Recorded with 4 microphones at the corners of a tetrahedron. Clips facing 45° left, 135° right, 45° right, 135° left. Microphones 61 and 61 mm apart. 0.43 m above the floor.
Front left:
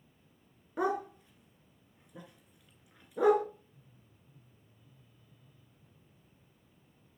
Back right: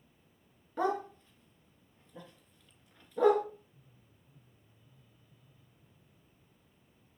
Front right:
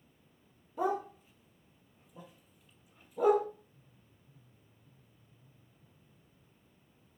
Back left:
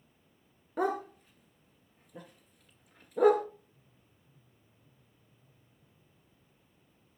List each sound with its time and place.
0.8 s a dog barking: 120° left, 2.0 m